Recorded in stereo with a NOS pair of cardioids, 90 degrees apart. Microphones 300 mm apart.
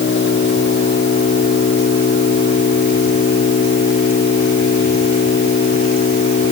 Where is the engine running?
40° left.